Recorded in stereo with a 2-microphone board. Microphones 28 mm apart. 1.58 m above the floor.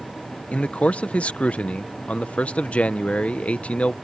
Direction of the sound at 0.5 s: 45° left (ahead or behind).